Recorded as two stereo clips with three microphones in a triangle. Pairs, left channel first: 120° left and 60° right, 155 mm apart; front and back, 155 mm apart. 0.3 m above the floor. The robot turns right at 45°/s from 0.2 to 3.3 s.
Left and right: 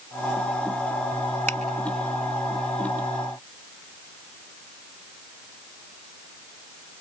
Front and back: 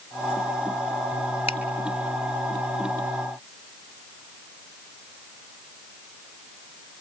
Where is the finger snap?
45° left, 1.7 m; by 1.6 s 50° left, 1.7 m.